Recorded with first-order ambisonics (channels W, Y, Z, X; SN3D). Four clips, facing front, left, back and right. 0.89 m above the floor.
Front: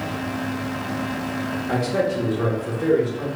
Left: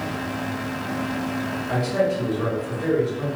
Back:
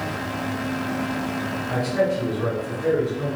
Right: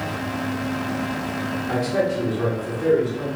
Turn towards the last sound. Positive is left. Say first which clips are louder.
# even, even
turn(degrees=-15)